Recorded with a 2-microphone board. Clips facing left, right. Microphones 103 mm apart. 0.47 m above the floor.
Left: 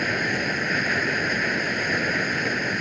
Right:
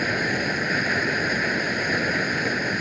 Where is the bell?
I don't hear a bell.